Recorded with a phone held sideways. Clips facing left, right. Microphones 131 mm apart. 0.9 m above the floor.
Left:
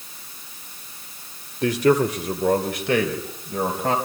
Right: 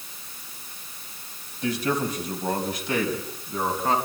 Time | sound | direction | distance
1.6 | a man speaking | 80° left | 2.5 m